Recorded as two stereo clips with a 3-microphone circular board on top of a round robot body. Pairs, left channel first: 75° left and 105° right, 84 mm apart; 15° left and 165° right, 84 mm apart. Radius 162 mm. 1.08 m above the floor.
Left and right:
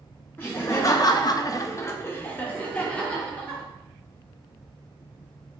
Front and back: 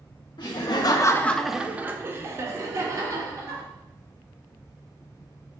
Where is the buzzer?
No buzzer in this recording.